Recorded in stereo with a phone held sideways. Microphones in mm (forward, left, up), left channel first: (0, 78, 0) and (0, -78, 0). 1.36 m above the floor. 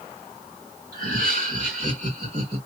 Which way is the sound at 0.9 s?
70° right (ahead or behind).